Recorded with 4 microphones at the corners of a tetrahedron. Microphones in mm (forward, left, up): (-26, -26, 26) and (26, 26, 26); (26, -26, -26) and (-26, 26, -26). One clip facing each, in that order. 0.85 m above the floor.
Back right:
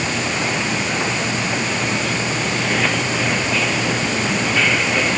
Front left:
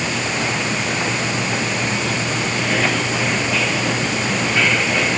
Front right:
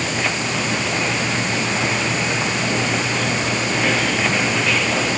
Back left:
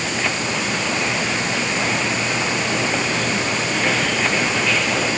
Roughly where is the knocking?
No knocking in this recording.